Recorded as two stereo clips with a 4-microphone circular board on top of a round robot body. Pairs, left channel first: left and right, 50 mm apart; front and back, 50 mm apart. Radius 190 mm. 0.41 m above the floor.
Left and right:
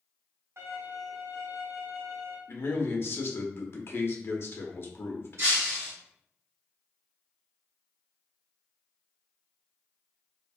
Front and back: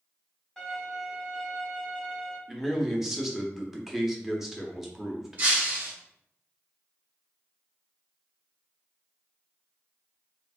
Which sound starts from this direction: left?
A man speaking, at 2.5 s.